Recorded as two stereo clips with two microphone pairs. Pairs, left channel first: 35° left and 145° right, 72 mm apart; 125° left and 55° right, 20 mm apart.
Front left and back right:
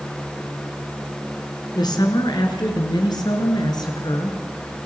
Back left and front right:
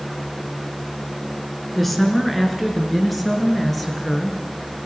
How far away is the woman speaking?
About 5.5 m.